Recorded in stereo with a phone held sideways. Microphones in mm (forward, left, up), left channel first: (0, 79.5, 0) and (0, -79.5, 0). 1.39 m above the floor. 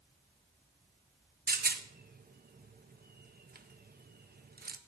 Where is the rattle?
75° right (ahead or behind), 0.5 m.